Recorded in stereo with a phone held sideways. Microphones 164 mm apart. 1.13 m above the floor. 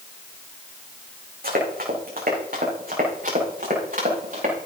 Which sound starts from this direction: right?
Running footsteps, at 1.4 s.